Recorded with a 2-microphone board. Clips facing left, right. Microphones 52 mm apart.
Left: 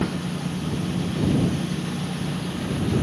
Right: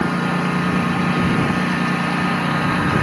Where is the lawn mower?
75° right (ahead or behind).